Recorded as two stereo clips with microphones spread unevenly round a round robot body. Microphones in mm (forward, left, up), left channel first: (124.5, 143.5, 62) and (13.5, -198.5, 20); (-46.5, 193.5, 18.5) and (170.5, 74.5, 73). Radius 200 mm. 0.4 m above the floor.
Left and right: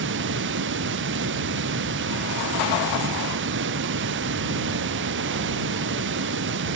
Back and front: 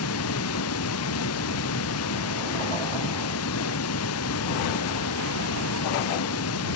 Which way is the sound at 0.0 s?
170° right.